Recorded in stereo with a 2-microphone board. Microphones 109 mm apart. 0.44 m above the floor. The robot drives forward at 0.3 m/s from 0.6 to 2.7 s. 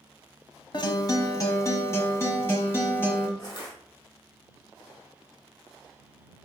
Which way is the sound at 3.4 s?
40° left (ahead or behind).